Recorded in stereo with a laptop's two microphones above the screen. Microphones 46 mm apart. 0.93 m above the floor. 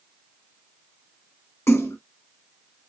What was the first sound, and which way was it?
A splash, 75° left (ahead or behind).